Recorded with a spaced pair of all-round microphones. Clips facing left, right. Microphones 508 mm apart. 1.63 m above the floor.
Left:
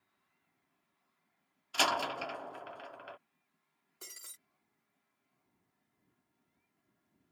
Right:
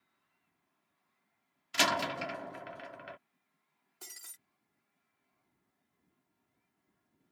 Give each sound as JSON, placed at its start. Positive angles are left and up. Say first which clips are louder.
{"t": 1.7, "sound": "a door slam", "louder": "right 2 dB", "side_deg": -45}
{"t": 4.0, "sound": "breaking glass", "louder": "left 1 dB", "side_deg": -15}